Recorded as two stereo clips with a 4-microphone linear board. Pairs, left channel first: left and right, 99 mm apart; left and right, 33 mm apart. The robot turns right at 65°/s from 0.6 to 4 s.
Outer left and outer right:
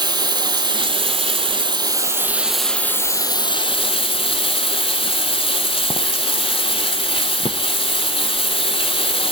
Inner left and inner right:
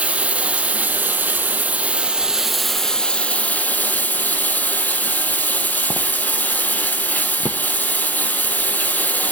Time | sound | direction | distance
0.0 | running water | 130° right | 0.8 m